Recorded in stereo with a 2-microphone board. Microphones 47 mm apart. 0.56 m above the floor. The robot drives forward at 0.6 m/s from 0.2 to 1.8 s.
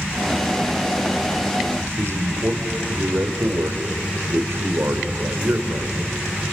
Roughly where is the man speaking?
Right.